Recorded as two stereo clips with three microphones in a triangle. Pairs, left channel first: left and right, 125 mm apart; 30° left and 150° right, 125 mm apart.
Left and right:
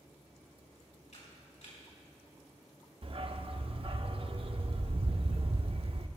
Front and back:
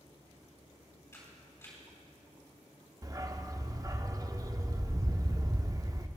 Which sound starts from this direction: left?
A camera shutter, at 1.1 s.